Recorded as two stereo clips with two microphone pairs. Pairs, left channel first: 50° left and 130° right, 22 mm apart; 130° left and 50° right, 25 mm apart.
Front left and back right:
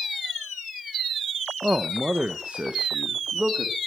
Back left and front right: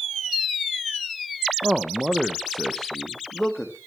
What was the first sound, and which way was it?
A man speaking, 95° right.